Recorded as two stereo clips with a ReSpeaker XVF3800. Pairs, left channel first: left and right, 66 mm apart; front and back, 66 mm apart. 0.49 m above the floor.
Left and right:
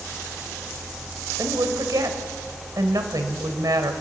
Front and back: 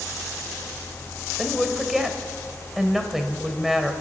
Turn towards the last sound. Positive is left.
turn(degrees=-95)